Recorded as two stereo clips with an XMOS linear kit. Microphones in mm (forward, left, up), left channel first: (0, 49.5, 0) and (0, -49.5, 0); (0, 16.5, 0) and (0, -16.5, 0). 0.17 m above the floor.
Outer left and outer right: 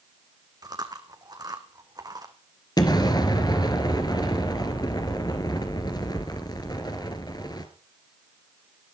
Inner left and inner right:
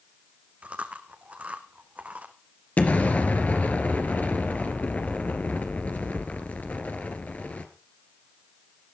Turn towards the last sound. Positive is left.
turn(degrees=45)  # may be behind; listen again after turning